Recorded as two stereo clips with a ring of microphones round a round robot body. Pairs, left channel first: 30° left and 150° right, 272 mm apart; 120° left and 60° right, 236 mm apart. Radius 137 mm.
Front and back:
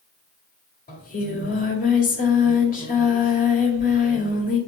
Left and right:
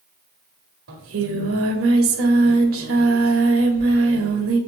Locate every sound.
0.9 s singing: 30° right, 1.8 m